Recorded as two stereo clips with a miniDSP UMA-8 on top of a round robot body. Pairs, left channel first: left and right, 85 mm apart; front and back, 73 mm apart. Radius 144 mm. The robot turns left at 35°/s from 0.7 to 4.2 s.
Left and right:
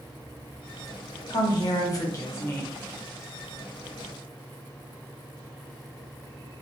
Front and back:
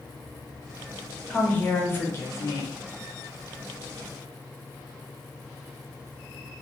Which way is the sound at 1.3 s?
75° left.